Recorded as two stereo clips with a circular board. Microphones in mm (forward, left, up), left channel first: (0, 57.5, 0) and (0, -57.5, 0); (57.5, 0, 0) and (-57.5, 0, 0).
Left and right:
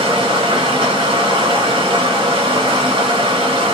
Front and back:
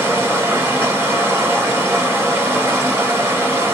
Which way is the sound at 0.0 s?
115° right.